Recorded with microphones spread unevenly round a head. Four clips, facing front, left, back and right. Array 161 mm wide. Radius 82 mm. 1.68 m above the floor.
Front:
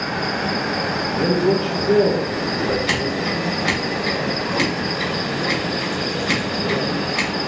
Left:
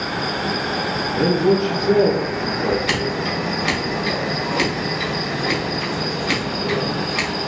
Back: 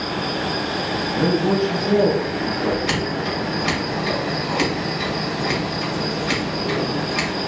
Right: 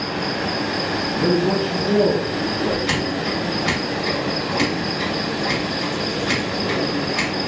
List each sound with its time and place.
0.0 s an insect: 15° left, 1.2 m
1.1 s a man speaking: 135° left, 1.5 m
2.9 s scissors: 135° left, 1.2 m